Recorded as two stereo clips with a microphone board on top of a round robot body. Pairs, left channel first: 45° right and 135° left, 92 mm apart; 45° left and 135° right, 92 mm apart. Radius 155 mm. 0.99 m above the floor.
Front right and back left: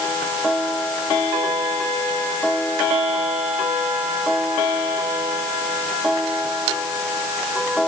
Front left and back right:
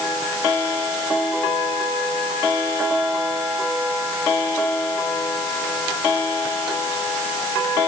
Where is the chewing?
No chewing in this recording.